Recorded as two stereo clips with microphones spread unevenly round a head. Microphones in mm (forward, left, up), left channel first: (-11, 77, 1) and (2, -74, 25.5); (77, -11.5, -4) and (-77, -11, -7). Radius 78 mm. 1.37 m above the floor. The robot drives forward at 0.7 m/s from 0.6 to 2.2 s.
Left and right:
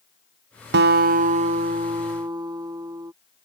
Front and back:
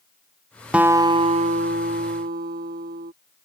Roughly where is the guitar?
Right.